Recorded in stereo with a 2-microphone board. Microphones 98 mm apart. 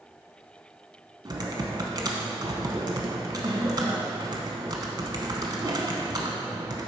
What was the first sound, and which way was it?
Typing on a keyboard, 45° right (ahead or behind).